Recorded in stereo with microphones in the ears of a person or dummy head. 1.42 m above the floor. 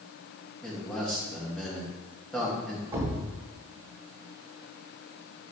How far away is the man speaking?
About 1.7 m.